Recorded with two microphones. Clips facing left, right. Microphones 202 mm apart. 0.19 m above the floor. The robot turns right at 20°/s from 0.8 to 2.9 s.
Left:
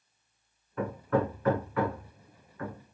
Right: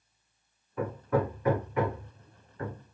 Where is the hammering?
5° right (ahead or behind), 0.9 m; by 3.0 s 40° right (ahead or behind), 0.9 m.